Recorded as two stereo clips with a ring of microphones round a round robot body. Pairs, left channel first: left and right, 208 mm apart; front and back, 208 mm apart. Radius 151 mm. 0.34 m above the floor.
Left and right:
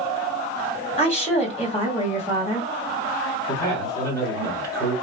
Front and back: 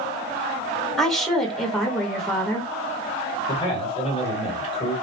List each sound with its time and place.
1.0 s a woman speaking: 85° left, 1.2 m
3.5 s a man speaking: 30° left, 1.7 m